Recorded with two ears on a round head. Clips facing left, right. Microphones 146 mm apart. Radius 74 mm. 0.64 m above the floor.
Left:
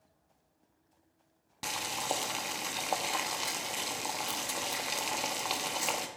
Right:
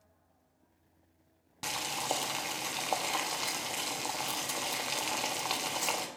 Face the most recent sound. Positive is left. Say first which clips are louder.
# even
turn(degrees=0)  # may be behind; listen again after turning